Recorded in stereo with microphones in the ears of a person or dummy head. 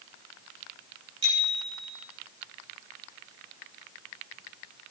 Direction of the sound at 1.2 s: 25° right (ahead or behind).